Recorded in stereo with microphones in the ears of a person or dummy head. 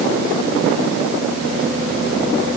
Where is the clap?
I don't hear a clap.